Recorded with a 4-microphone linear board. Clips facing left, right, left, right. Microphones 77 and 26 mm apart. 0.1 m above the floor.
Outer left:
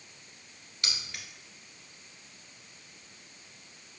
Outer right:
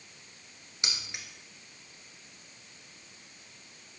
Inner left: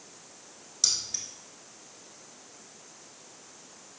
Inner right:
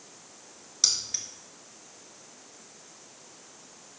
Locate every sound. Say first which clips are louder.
0.8 s keys jangling: outer right 1 dB, inner right 2 dB; 20° right (ahead or behind), 1.2 m